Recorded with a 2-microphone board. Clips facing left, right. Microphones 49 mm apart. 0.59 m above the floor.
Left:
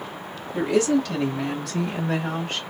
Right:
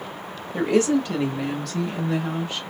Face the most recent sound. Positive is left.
turn(degrees=40)  # may be behind; listen again after turning